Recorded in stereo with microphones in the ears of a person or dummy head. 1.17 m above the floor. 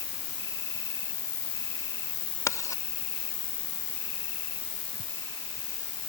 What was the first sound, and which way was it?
An insect, 50° left (ahead or behind).